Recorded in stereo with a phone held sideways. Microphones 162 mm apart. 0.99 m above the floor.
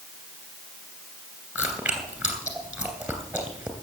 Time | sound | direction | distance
1.6 | chewing | 5° right (ahead or behind) | 2.5 m